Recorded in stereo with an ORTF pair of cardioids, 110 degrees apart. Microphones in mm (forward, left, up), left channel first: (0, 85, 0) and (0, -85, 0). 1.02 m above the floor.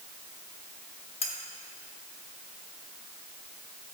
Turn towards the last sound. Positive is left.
turn(degrees=35)